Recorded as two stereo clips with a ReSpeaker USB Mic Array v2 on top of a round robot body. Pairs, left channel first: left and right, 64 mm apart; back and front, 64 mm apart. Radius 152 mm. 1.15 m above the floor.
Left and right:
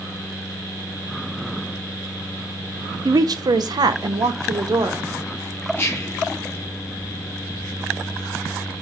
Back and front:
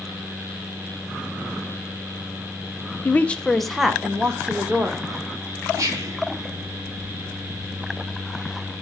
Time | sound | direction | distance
3.0 | a woman speaking | 120° right | 0.6 m
5.8 | whispering | 35° left | 1.0 m